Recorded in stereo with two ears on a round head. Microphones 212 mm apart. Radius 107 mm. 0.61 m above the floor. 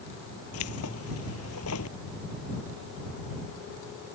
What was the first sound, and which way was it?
Keys jangling, 65° left (ahead or behind).